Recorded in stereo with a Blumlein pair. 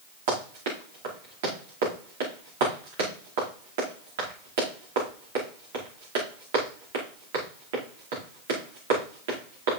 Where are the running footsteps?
50° right, 5 m.